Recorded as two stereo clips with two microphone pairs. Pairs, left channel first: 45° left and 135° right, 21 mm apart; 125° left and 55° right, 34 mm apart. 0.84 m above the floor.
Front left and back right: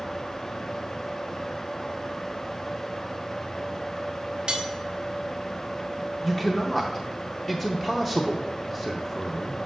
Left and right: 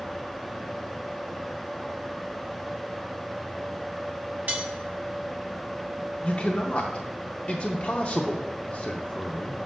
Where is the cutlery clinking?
90° right, 1.1 m.